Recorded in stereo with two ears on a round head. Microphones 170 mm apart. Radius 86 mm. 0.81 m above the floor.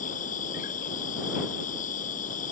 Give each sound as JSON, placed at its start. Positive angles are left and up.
{"t": 0.0, "sound": "an insect", "side_deg": 40}